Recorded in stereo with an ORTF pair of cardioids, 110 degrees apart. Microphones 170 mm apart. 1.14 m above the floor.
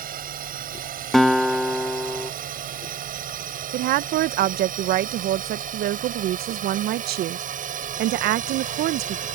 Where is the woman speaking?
65° right.